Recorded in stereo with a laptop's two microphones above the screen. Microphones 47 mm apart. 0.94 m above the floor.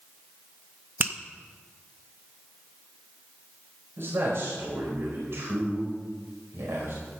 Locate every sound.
1.0 s a finger snap: 45° right (ahead or behind), 0.6 m
4.0 s a man speaking: 70° right (ahead or behind), 4.5 m